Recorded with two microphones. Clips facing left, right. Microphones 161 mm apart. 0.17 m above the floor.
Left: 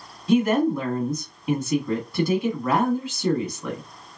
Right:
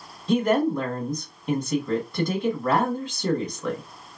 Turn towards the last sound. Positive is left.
turn(degrees=5)  # may be behind; listen again after turning